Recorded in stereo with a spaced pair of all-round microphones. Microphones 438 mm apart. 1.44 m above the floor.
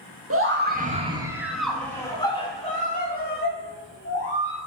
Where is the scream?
30° right (ahead or behind), 1.8 m; by 4.6 s 30° left (ahead or behind), 4 m.